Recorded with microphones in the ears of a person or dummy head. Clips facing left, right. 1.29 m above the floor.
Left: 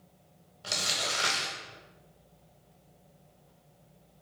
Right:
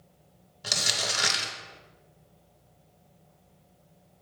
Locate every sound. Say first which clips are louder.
0.6 s crumpling: right 2 dB; 20° right (ahead or behind), 0.7 m